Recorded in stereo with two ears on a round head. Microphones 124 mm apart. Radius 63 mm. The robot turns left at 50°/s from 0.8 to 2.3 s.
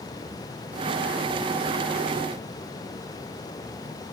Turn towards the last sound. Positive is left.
No sound to turn to.